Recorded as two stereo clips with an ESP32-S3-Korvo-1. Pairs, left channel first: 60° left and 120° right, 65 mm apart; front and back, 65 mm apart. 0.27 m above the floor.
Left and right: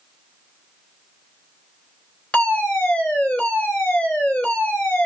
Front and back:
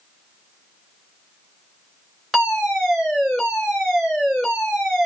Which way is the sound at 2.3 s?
90° left.